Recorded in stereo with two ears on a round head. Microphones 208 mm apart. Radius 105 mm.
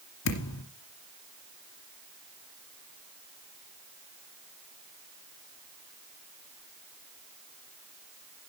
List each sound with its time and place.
0.2 s a thud: 75° left (ahead or behind), 2 m